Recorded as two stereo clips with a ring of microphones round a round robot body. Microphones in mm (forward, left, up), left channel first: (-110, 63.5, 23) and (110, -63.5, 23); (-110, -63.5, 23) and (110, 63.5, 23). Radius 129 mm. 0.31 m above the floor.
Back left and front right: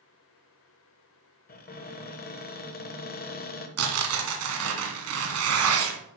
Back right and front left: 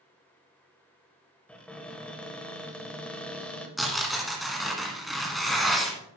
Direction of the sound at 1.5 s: 125° left.